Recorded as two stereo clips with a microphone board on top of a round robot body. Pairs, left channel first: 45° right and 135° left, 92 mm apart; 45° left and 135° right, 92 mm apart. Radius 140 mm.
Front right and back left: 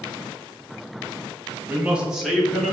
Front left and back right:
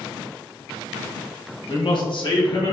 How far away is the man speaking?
About 1.4 m.